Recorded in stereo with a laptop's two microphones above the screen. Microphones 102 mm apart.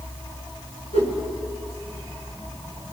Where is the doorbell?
No doorbell in this recording.